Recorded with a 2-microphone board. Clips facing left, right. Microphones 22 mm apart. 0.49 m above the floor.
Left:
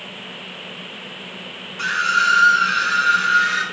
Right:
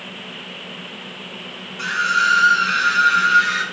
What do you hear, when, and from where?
1.8 s a scream: 5° left (ahead or behind), 1.3 m; by 3.6 s 5° right (ahead or behind), 2.5 m